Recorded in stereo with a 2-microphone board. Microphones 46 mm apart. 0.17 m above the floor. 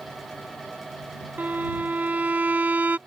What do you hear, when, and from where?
1.4 s a violin: 40° right (ahead or behind)